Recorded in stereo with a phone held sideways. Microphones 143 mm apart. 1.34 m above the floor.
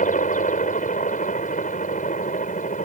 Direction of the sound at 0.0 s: 65° left (ahead or behind).